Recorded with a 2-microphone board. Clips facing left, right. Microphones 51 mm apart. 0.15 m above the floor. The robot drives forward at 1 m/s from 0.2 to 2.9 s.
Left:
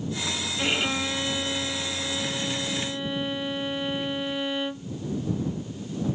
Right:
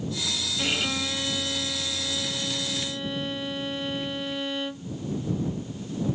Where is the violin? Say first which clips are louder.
Left 2 dB; 15° left (ahead or behind).